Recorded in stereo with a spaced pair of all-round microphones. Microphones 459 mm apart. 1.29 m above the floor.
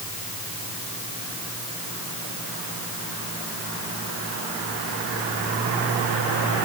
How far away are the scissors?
I don't hear scissors.